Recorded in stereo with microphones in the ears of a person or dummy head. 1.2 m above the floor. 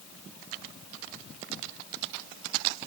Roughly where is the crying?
I don't hear crying.